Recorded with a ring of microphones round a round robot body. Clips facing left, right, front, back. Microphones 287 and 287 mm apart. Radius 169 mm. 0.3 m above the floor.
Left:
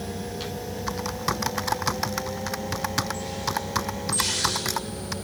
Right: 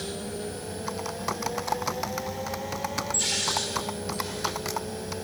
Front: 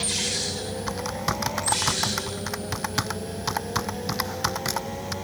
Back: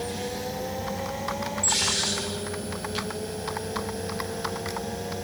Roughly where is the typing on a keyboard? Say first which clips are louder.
Left 2 dB, front 1 dB; ahead left.